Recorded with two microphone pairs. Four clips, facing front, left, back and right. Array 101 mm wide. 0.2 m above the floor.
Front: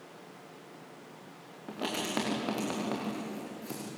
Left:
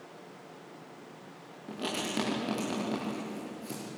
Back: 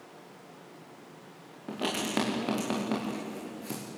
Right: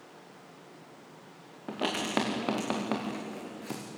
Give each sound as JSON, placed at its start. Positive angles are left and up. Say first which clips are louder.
{"t": 1.7, "sound": "writing", "louder": "right 4 dB, back 3 dB", "azimuth_deg": -85, "distance_m": 7.5}